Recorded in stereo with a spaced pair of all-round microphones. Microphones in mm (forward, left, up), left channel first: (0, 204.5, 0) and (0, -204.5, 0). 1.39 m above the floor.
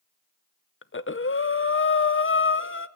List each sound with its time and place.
0.8 s breathing: 30° left (ahead or behind), 0.5 m